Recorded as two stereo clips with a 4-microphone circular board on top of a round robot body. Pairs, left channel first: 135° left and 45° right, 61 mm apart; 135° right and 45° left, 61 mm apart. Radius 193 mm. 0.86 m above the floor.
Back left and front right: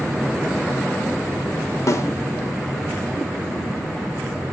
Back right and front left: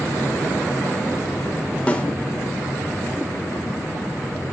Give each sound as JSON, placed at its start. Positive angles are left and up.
{"t": 1.9, "sound": "a snare drum", "azimuth_deg": 155, "distance_m": 1.5}